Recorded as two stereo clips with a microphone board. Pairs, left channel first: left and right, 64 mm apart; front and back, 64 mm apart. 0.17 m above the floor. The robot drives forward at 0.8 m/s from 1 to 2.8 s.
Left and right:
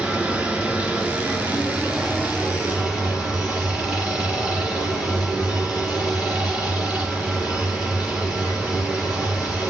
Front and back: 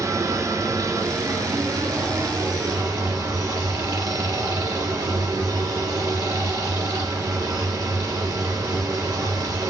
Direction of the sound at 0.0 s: 160° right.